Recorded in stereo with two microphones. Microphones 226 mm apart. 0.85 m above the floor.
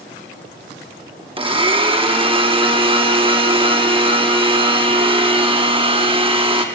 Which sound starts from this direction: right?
A blender, at 1.4 s.